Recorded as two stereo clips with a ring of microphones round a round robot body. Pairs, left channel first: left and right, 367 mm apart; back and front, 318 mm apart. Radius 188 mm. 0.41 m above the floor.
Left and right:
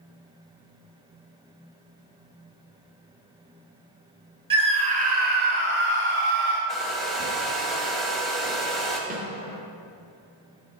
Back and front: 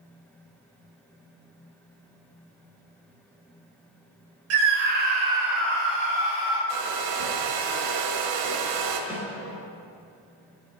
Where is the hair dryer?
Straight ahead, 1.0 m.